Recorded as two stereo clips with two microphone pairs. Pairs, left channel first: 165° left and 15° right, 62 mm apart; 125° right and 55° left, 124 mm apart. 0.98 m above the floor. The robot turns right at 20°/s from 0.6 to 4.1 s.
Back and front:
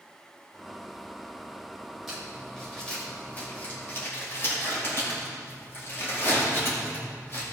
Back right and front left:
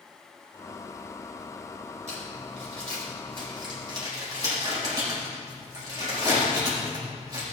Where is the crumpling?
75° left, 5.5 m; by 7.4 s 115° left, 5.5 m.